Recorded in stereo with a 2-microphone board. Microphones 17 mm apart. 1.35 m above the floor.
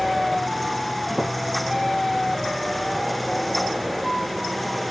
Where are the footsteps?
25° right (ahead or behind), 2 m.